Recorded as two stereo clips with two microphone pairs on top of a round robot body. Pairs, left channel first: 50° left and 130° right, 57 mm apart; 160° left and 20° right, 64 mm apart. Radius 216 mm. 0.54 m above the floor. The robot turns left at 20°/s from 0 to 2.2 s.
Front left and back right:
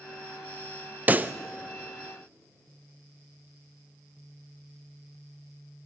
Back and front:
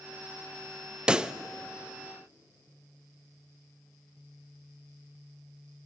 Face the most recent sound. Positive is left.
turn(degrees=-110)